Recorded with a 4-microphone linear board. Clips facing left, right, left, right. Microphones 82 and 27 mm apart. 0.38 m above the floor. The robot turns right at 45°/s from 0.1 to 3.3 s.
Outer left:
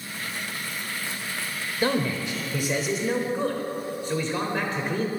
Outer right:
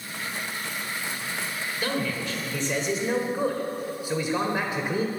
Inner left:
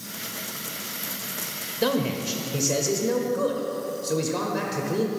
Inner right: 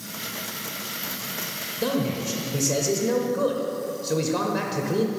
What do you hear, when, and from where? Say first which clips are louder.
1.8 s a man speaking: outer left 5 dB, inner left 1 dB; 130° left, 1.1 m; by 5.1 s 165° right, 1.1 m